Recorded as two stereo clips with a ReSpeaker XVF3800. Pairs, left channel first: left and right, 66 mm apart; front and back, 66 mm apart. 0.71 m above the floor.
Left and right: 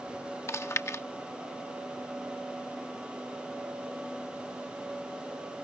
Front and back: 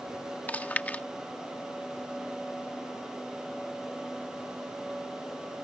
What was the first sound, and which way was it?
Chewing, 60° left.